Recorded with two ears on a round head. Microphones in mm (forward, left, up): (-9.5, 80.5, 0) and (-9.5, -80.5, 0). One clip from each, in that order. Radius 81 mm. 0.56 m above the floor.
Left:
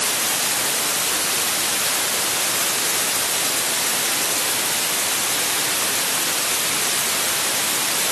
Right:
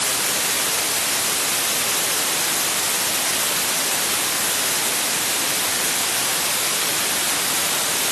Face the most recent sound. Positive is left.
No sound to turn to.